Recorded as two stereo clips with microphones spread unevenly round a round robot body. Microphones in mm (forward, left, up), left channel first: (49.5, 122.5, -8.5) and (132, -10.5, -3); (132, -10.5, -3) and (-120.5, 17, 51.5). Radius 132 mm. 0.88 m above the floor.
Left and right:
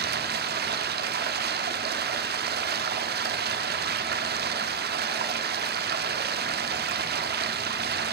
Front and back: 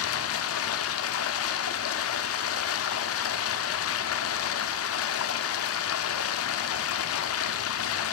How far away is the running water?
About 1.0 m.